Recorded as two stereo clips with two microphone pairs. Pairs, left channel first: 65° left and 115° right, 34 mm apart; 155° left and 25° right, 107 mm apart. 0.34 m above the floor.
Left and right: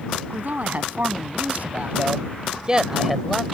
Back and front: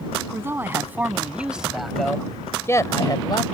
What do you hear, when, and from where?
0.3 s a man speaking: 90° right; by 3.4 s 150° left